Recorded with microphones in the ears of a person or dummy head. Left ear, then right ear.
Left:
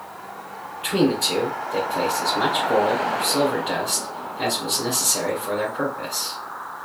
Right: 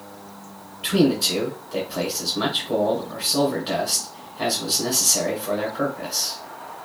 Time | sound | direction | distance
0.8 | a man speaking | 20° left (ahead or behind) | 1.0 m